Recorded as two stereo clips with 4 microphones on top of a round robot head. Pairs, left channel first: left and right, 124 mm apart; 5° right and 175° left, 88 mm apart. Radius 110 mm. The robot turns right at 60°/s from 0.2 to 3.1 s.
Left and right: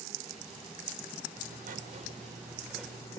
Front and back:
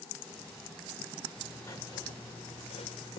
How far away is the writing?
About 3 m.